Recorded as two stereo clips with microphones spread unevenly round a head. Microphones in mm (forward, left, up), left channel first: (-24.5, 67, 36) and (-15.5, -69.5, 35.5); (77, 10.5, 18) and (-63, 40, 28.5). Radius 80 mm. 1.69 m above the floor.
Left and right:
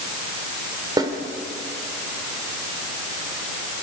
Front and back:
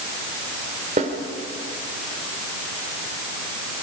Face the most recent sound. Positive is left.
turn(degrees=-145)